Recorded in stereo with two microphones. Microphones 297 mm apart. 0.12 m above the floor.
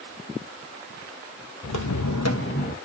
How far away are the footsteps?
About 0.6 m.